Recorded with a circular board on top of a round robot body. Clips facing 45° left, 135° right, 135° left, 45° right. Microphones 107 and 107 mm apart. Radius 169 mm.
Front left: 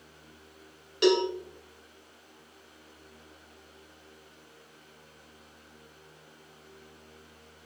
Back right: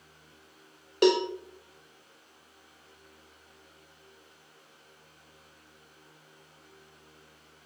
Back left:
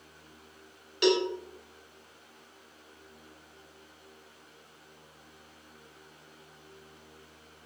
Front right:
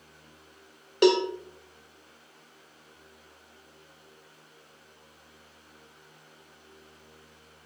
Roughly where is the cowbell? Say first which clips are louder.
Even, front right 4 dB; right.